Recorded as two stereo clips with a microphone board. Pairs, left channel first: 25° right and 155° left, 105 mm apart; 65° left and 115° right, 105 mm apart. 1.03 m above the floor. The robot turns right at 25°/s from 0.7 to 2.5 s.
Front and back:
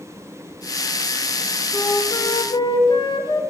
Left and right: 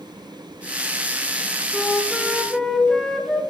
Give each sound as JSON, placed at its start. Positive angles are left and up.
{"t": 1.7, "sound": "a flute", "azimuth_deg": -40, "distance_m": 0.6}